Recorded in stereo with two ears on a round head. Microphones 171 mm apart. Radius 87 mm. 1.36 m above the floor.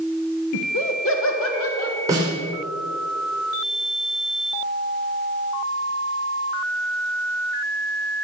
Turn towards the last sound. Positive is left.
turn(degrees=-15)  # may be behind; listen again after turning